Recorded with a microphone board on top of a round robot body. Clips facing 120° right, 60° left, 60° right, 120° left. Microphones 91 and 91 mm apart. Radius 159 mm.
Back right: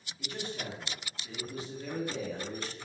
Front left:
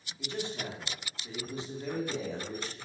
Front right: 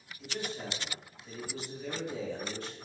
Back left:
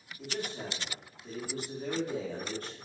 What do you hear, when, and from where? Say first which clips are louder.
0.2 s a man speaking: front left 3 dB, back left 1 dB; 115° left, 1.0 m